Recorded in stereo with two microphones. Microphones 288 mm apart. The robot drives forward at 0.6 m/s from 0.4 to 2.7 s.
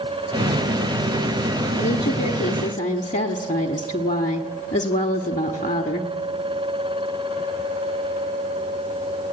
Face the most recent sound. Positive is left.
turn(degrees=25)  # may be behind; listen again after turning